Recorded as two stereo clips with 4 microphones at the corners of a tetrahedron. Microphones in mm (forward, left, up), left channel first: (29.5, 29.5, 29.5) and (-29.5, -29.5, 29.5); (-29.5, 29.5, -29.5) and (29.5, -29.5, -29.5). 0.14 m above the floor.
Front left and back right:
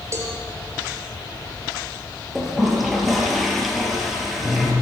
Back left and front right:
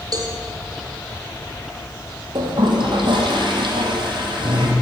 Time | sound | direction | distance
0.1 | a cowbell | 80° right | 4 m
2.4 | a toilet flushing | 45° right | 4 m